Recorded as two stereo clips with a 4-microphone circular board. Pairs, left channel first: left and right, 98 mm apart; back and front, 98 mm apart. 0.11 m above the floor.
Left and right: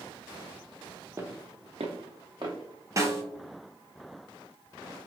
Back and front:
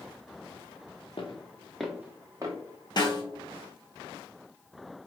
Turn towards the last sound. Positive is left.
turn(degrees=-145)